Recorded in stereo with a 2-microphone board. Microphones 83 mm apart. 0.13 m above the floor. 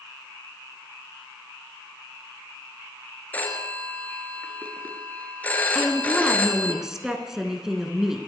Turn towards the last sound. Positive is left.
turn(degrees=-5)  # may be behind; listen again after turning